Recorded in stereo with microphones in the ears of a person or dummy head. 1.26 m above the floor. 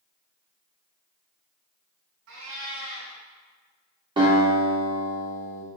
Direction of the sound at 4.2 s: 25° right (ahead or behind).